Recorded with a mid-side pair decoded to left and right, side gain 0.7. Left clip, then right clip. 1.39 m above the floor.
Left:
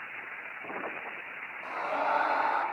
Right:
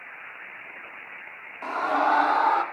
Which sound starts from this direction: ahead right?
A scream, at 1.6 s.